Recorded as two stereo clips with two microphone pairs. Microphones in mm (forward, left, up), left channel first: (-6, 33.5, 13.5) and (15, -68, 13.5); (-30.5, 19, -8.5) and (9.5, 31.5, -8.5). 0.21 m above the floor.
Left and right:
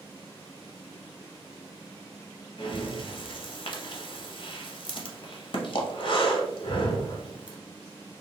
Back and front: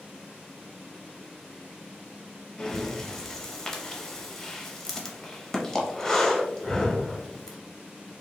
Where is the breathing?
120° left, 0.7 m.